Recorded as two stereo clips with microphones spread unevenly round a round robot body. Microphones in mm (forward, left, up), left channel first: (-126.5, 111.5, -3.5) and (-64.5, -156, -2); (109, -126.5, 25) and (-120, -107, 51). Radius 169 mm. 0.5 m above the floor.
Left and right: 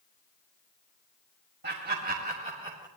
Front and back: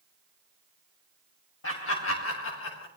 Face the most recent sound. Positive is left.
turn(degrees=0)